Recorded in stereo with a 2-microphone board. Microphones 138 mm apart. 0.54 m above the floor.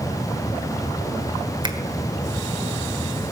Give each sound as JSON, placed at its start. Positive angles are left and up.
{"t": 1.6, "sound": "a finger snap", "side_deg": -35, "distance_m": 1.5}